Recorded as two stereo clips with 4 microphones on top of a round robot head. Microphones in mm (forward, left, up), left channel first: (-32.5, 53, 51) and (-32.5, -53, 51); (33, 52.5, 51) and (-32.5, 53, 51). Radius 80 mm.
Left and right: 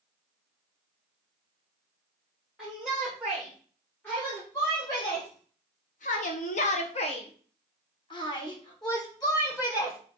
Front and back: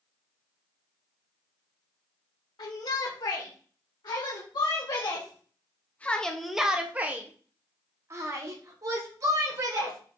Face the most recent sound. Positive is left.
turn(degrees=145)